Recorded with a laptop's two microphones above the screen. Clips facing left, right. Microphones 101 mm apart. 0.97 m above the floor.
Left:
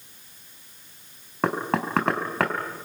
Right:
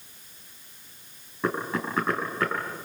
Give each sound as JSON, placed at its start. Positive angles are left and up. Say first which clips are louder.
{"t": 1.4, "sound": "knocking", "louder": "left 3 dB", "side_deg": 85, "distance_m": 4.5}